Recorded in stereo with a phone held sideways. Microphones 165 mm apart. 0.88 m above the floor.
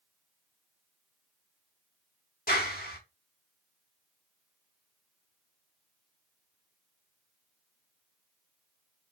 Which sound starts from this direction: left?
A clap, at 2.5 s.